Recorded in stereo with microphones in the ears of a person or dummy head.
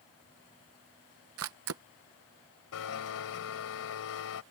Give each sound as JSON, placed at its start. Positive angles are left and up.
{"t": 1.4, "sound": "a camera shutter", "side_deg": -75}
{"t": 2.7, "sound": "a blender", "side_deg": 80}